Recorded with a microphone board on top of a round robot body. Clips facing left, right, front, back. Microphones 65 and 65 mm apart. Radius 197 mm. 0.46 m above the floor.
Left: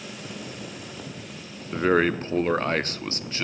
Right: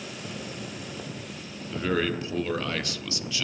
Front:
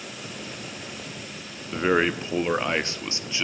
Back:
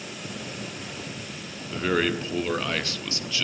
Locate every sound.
1.7 s a man speaking: 55° left, 0.9 m